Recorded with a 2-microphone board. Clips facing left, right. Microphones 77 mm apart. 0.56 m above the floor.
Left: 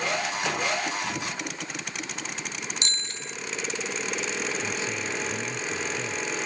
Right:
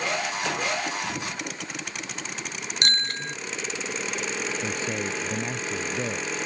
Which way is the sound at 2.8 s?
55° right (ahead or behind).